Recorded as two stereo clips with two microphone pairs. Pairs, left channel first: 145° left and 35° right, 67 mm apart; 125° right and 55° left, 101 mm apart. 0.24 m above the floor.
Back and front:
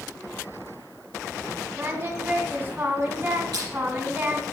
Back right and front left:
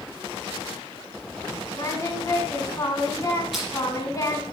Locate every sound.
1.8 s singing: 80° right, 2 m
3.5 s crushing: 30° right, 6 m